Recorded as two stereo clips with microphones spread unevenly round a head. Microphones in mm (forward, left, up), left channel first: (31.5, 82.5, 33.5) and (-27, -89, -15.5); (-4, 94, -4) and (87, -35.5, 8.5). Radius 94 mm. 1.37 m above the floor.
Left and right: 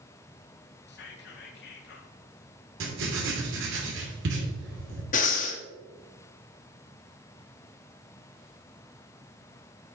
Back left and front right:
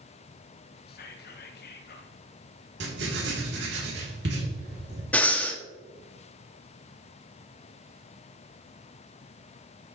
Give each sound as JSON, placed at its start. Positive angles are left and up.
{"t": 0.9, "sound": "whispering", "azimuth_deg": 105, "distance_m": 1.6}
{"t": 2.8, "sound": "writing", "azimuth_deg": -85, "distance_m": 2.5}
{"t": 5.1, "sound": "breathing", "azimuth_deg": 40, "distance_m": 1.3}